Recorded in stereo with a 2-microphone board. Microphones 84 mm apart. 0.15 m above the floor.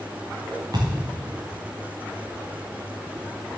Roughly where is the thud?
Right.